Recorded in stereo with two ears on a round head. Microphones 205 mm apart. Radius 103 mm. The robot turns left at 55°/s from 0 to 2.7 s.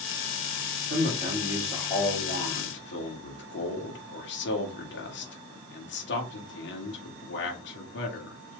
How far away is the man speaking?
About 1.6 m.